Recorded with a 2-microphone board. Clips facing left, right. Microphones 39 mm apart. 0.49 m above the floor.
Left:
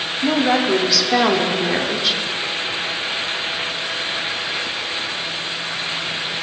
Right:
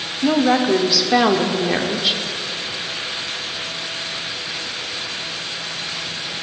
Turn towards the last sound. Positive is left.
turn(degrees=-5)  # may be behind; listen again after turning